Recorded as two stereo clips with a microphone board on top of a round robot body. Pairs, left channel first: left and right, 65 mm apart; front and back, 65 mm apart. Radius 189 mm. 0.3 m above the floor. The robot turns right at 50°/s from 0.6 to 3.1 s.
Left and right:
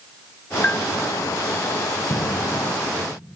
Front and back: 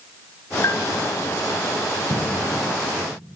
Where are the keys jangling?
I don't hear keys jangling.